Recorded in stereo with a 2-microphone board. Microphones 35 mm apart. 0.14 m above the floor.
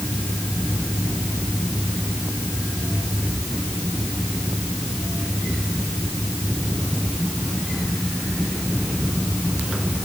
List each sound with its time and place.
Only background noise.